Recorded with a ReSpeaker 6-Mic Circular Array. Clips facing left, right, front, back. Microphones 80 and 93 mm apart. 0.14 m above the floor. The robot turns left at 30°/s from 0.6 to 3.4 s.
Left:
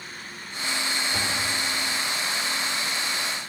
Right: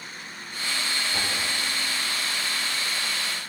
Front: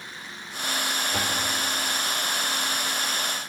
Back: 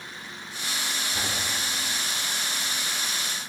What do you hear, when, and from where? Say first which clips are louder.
1.1 s a door slam: left 1 dB, front 4 dB; 20° left, 9 m; by 1.4 s 10° left, 9 m